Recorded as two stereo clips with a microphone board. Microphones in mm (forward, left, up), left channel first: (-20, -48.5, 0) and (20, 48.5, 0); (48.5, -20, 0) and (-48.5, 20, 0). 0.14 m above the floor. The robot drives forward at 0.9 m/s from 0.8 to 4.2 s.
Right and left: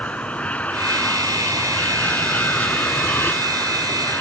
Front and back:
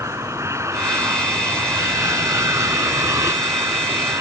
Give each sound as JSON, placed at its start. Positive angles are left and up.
{"t": 0.0, "sound": "an aircraft", "azimuth_deg": 180}